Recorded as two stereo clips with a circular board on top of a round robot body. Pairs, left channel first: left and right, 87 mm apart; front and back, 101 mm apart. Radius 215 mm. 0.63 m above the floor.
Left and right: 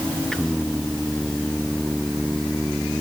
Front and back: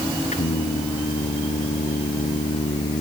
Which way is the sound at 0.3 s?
5° left.